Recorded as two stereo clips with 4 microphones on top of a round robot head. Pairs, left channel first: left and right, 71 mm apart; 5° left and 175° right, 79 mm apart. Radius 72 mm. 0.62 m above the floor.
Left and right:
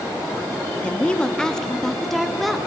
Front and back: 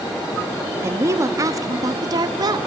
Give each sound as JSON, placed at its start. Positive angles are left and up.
{"t": 0.8, "sound": "a woman speaking", "azimuth_deg": 155, "distance_m": 1.3}